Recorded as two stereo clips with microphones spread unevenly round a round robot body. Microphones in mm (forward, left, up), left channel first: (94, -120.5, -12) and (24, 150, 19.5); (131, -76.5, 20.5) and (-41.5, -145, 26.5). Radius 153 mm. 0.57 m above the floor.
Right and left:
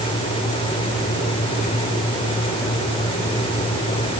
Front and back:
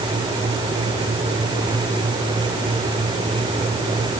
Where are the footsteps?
No footsteps in this recording.